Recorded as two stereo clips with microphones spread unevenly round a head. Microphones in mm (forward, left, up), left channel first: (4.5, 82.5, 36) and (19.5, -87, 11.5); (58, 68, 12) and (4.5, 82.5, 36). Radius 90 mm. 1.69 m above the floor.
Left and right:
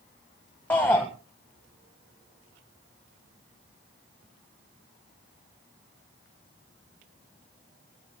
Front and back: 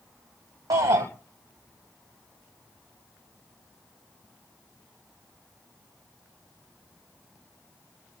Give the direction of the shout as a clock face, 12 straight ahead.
6 o'clock.